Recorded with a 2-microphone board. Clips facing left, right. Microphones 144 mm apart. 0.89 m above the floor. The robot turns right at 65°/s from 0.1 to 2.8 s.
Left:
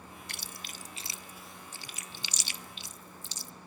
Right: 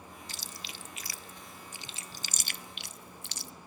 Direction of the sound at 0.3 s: 70° left (ahead or behind).